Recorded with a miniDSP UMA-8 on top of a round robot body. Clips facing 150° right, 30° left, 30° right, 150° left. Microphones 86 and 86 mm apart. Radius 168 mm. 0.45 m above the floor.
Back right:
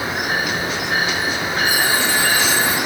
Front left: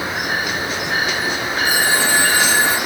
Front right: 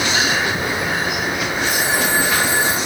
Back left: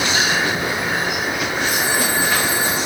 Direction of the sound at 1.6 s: 30° right.